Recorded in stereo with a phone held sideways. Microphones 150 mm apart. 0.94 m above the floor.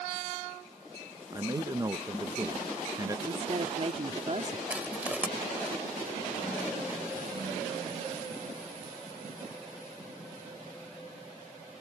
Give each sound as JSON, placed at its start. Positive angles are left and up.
{"t": 1.3, "sound": "a man speaking", "side_deg": -25}
{"t": 3.3, "sound": "a woman speaking", "side_deg": -45}
{"t": 4.7, "sound": "crushing", "side_deg": -10}